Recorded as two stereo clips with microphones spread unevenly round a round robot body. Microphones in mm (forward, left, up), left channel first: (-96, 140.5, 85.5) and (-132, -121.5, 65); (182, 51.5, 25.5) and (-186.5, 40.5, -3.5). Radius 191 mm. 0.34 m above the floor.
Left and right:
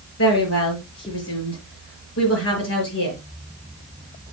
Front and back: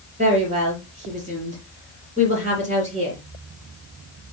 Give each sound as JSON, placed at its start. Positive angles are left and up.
{"t": 0.2, "sound": "a woman speaking", "azimuth_deg": 110, "distance_m": 7.0}